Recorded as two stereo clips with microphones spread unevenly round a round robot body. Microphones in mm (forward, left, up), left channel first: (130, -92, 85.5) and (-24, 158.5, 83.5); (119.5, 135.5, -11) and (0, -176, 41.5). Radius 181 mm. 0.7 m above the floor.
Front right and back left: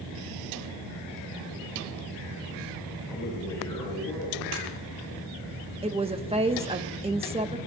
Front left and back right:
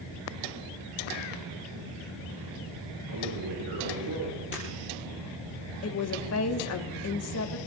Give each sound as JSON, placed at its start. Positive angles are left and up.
{"t": 3.1, "sound": "a man speaking", "azimuth_deg": -140, "distance_m": 5.5}
{"t": 4.5, "sound": "breaking glass", "azimuth_deg": 130, "distance_m": 7.0}
{"t": 5.8, "sound": "a woman speaking", "azimuth_deg": 55, "distance_m": 1.3}